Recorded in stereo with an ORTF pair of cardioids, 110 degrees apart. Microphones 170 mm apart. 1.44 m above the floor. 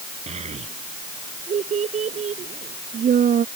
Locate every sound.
0.3 s a child speaking: 40° right; by 3.5 s 50° right